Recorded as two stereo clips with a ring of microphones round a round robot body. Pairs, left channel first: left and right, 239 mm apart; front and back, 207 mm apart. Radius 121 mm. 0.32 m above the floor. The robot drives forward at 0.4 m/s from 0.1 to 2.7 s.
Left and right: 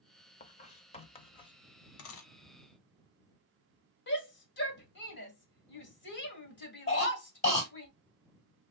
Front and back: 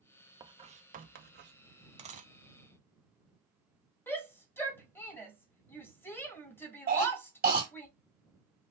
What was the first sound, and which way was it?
Writing, 125° left.